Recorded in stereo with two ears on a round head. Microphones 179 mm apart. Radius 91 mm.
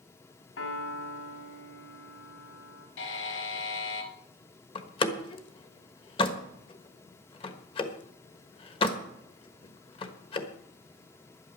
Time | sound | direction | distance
0.6 | a piano | 70° left (ahead or behind) | 2 m
3.0 | a buzzer | 75° left (ahead or behind) | 1.9 m
4.8 | a door slam | 25° left (ahead or behind) | 1.3 m